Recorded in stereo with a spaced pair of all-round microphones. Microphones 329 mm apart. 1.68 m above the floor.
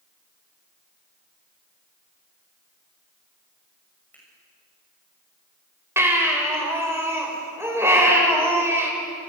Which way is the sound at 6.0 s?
10° right (ahead or behind).